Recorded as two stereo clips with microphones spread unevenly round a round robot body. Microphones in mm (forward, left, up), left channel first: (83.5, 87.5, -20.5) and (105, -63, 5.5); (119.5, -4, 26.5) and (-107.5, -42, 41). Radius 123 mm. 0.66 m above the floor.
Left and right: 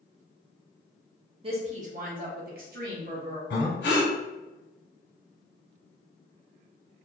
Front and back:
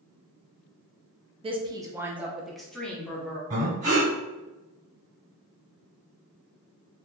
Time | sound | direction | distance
1.4 | a woman speaking | 120° right | 0.7 m
3.5 | breathing | 130° left | 1.9 m